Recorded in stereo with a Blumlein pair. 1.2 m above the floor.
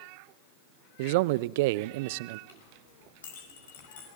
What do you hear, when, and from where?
1.0 s a man speaking: 50° right, 0.5 m
2.5 s a clink: 60° left, 5 m